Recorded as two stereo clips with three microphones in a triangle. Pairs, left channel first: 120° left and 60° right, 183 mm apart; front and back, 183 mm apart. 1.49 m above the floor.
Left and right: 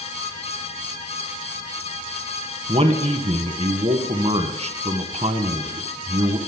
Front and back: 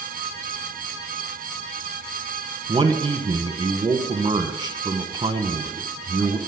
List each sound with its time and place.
2.7 s a man speaking: 115° right, 0.9 m